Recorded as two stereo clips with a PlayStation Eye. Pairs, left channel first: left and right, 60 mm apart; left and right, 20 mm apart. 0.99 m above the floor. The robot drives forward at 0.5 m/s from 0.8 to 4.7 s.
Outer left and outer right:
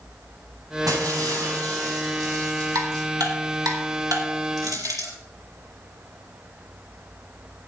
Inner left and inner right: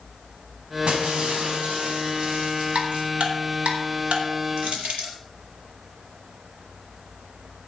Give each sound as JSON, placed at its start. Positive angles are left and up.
{"t": 0.9, "sound": "breaking glass", "side_deg": -70, "distance_m": 4.5}
{"t": 2.8, "sound": "ticking", "side_deg": -80, "distance_m": 4.0}
{"t": 4.6, "sound": "crushing", "side_deg": -75, "distance_m": 6.0}